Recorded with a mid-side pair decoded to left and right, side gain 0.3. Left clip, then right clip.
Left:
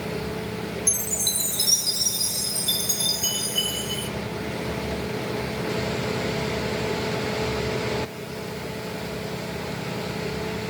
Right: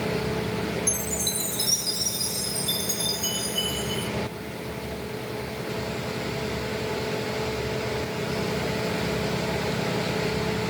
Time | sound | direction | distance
0.9 | a chime | 40° left | 1.3 m